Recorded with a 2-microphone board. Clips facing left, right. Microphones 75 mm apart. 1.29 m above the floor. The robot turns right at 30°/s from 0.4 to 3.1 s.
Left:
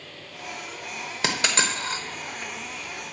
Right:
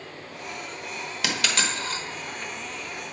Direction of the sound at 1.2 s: 30° left (ahead or behind).